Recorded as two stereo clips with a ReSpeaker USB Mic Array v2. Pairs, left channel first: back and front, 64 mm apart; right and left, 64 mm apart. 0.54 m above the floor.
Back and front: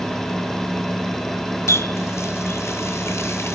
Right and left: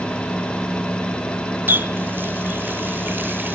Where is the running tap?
145° left, 0.9 m.